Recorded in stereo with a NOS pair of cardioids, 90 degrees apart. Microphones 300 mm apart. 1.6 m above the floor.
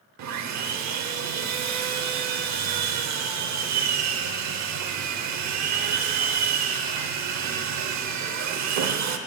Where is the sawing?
65° right, 0.7 m.